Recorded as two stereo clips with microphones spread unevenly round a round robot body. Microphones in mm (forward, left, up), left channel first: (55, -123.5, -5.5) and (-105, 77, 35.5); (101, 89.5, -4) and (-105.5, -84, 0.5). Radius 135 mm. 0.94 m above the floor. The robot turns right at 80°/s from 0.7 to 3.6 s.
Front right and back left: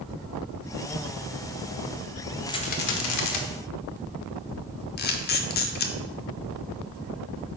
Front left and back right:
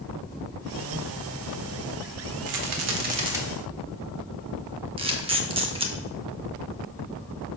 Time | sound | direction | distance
2.5 | a rattle | 135° right | 0.9 m
5.0 | a camera shutter | 85° right | 0.7 m